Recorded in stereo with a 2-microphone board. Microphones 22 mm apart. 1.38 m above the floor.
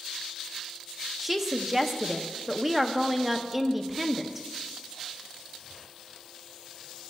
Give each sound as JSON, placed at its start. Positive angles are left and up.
{"t": 1.2, "sound": "a woman speaking", "side_deg": -10, "distance_m": 0.6}